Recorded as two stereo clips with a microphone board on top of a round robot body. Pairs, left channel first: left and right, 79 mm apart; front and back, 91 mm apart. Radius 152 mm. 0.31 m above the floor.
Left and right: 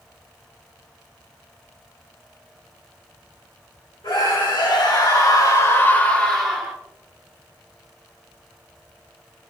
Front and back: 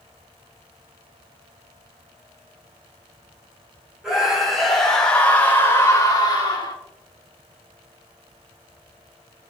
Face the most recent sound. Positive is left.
turn(degrees=-15)